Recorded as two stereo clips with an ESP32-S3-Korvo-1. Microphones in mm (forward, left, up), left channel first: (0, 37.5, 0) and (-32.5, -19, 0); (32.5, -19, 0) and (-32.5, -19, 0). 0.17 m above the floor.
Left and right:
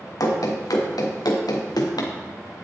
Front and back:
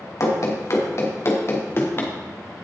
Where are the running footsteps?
35° left, 3 m; by 2.1 s 55° left, 2.5 m.